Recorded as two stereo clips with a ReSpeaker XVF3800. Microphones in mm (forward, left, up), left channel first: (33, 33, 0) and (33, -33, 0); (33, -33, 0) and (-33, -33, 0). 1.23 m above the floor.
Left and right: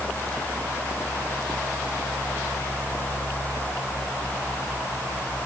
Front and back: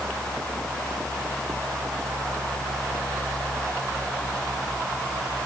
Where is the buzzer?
No buzzer in this recording.